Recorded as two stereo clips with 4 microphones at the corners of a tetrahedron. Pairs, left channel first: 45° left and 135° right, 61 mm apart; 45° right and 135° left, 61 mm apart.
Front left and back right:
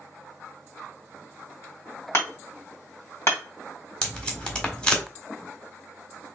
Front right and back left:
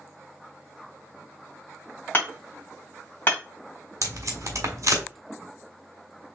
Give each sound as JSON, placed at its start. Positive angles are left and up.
{"t": 2.1, "sound": "hammering", "azimuth_deg": 10, "distance_m": 2.0}
{"t": 4.0, "sound": "tape being pulled", "azimuth_deg": 120, "distance_m": 1.4}